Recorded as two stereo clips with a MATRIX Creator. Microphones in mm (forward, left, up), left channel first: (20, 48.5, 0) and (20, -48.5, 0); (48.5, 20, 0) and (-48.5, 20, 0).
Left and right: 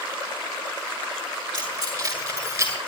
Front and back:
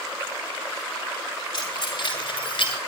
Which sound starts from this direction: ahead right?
Keys jangling, at 1.5 s.